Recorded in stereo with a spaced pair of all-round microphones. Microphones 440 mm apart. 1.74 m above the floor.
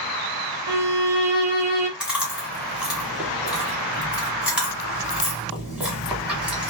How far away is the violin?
About 0.7 m.